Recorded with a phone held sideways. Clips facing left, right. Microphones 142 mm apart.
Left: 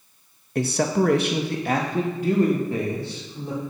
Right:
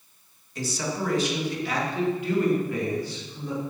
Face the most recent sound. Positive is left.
turn(degrees=25)  # may be behind; listen again after turning